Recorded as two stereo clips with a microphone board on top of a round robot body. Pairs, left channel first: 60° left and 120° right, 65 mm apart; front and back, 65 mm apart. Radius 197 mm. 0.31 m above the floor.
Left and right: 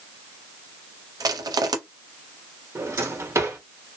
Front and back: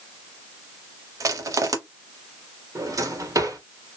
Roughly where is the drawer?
Behind.